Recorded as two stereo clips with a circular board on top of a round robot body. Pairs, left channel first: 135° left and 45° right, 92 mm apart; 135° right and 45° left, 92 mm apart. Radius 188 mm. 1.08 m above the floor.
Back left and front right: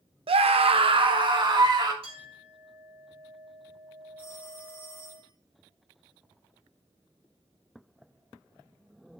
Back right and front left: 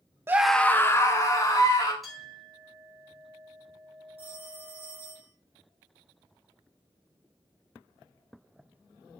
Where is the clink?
45° right, 5 m.